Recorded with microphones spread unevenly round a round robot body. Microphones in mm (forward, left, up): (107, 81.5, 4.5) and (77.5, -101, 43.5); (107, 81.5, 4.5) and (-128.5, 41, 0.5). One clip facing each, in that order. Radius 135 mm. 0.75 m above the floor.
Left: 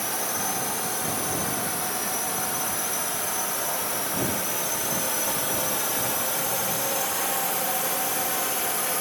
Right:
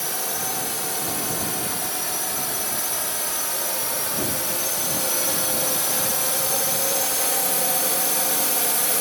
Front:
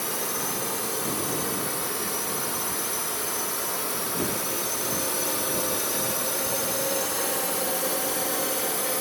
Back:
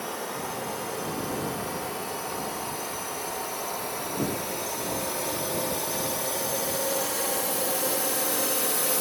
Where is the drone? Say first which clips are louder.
Even, front 1 dB; 50° right; by 9.0 s 100° right.